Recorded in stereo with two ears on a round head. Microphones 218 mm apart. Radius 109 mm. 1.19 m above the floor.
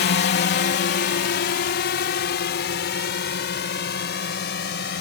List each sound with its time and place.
0.0 s a drone: 40° left (ahead or behind); by 5.0 s 45° left (ahead or behind)